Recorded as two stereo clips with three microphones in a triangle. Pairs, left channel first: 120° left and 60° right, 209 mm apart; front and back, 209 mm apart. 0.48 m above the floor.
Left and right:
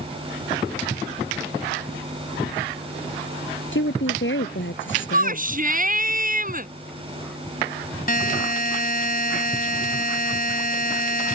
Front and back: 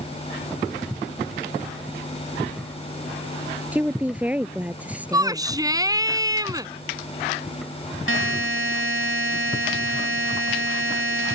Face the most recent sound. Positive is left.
turn(degrees=165)